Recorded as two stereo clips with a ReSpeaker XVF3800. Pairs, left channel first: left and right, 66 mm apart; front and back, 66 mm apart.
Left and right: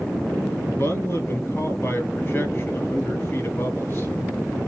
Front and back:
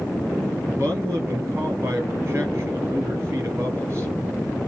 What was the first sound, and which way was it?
A man speaking, 135° left.